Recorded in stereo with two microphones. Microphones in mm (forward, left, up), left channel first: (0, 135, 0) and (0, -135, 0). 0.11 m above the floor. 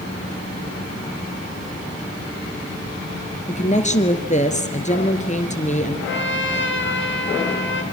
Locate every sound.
3.5 s a woman speaking: 25° left (ahead or behind), 2 m
6.1 s a trumpet: 45° left (ahead or behind), 1.9 m